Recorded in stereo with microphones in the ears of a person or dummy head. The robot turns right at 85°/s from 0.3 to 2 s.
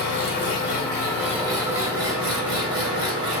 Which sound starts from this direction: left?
An engine running, at 0.0 s.